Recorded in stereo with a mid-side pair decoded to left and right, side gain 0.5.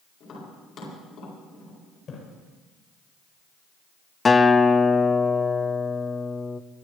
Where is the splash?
50° left, 7.5 m.